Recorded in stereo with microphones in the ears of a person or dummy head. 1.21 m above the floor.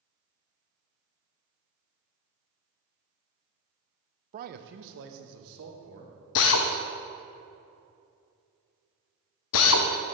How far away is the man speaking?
About 0.5 m.